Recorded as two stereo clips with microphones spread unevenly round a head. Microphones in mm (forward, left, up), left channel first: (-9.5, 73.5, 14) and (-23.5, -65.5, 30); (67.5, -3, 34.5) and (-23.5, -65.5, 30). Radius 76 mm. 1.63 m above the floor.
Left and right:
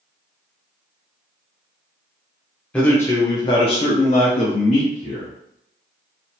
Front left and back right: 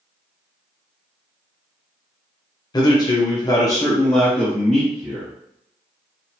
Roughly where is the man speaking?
Ahead.